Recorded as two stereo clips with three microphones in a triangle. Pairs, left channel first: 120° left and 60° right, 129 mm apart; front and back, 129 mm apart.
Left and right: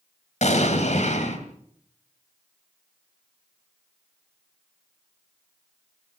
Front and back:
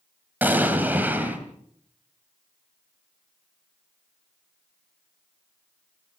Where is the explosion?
105° left, 2.5 m.